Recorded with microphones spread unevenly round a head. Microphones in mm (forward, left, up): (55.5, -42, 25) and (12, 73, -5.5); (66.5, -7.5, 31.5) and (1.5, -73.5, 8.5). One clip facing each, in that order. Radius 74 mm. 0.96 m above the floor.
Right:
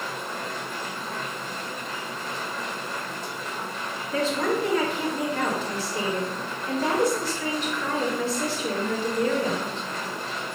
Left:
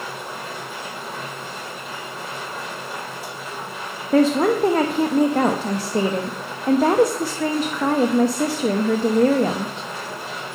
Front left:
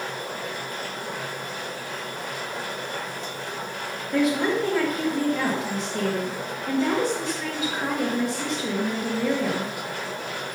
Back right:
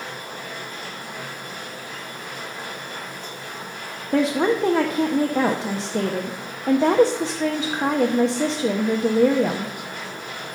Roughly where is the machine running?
Ahead left.